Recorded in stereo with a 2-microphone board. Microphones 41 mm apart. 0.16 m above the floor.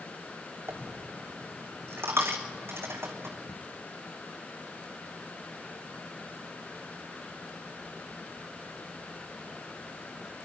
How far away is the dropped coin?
About 1.4 m.